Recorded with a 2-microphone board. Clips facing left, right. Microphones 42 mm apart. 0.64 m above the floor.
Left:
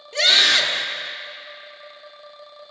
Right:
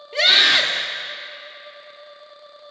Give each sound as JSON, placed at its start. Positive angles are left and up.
{"t": 0.1, "sound": "a scream", "side_deg": -15, "distance_m": 1.0}